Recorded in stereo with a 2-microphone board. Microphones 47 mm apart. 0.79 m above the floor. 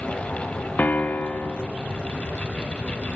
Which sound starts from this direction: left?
A piano, at 0.8 s.